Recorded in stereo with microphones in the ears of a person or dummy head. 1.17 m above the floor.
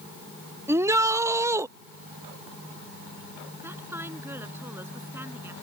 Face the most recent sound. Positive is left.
turn(degrees=-5)  # may be behind; listen again after turning